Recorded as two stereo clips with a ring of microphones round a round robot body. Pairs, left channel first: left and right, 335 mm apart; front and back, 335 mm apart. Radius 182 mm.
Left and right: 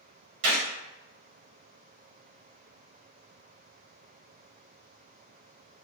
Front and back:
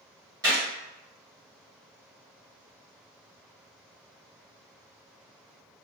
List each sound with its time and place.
0.4 s a gunshot: 100° right, 1.1 m